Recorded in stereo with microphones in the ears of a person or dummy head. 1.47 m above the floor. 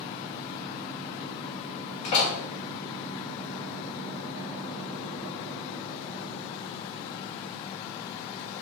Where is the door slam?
40° left (ahead or behind), 5 m.